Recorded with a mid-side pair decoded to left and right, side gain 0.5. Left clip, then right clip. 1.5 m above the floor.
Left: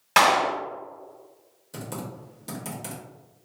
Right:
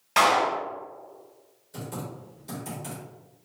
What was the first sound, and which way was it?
A clap, 55° left.